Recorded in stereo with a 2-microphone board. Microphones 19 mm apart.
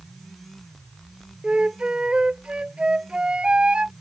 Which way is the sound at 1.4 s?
60° right (ahead or behind).